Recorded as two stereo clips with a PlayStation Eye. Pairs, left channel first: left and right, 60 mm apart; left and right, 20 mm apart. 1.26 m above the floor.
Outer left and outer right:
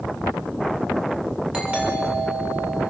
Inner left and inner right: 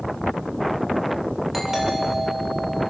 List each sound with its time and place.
1.5 s a doorbell: 20° right (ahead or behind), 6.5 m